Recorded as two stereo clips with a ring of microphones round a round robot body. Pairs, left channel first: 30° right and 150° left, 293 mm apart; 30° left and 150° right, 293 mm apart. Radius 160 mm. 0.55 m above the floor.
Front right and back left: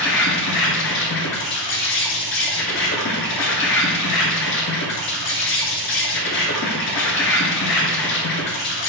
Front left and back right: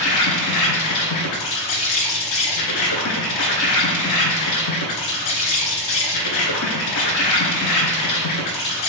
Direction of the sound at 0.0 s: 15° left.